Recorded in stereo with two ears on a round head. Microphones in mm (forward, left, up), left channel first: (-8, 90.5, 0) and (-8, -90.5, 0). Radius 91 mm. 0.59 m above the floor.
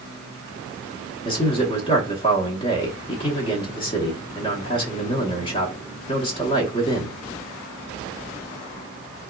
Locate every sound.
1.2 s a man speaking: 25° left (ahead or behind), 0.7 m